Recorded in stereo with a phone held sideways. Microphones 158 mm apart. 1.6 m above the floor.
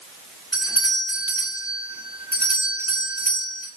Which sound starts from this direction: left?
A doorbell, at 0.5 s.